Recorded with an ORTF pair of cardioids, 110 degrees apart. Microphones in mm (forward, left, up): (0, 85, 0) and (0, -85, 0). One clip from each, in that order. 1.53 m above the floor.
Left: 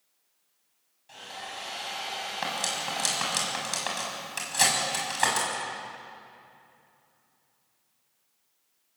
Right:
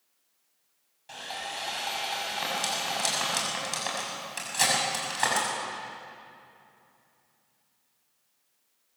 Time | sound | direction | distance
1.1 | sawing | 45° right | 6.5 m
2.4 | cutlery clinking | 15° left | 6.5 m